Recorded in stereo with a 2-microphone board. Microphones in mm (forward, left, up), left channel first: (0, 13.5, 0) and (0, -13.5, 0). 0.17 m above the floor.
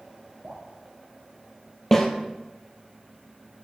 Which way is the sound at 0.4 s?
40° right (ahead or behind).